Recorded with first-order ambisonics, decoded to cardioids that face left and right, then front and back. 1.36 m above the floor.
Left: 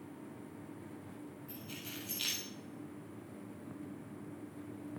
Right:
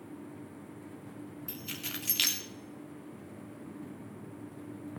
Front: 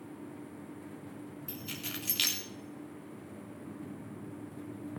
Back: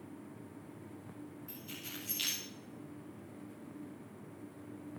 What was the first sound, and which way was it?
Keys jangling, 60° right.